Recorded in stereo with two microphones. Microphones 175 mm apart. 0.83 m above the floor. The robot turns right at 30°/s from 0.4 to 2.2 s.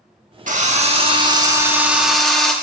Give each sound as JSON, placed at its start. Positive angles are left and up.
{"t": 0.5, "sound": "a drill", "azimuth_deg": -50, "distance_m": 1.1}